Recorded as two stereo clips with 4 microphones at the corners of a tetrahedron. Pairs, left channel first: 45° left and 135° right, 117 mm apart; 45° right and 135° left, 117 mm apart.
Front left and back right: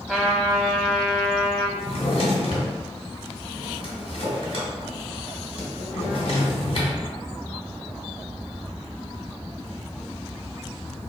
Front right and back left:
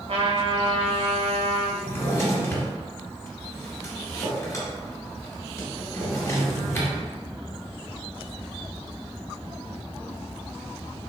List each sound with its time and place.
0.1 s a trumpet: 135° left, 0.7 m
1.8 s a drawer: 20° left, 1.2 m